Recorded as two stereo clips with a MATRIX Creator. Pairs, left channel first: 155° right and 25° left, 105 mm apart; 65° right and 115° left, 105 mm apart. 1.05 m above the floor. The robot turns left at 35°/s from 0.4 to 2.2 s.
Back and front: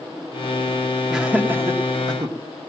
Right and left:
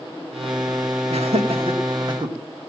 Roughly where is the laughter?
Left.